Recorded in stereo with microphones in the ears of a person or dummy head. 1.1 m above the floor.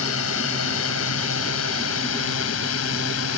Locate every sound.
0.0 s a drone: 80° left